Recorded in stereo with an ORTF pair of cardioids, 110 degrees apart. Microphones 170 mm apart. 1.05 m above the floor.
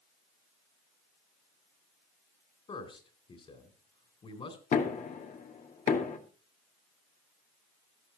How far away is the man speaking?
About 3.5 m.